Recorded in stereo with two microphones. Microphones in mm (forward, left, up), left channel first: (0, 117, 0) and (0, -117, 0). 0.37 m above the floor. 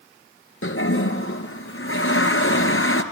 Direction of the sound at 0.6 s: 65° left (ahead or behind).